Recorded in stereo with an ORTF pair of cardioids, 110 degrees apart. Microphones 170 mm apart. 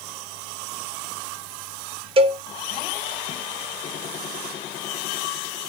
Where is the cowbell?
35° right, 1.4 m.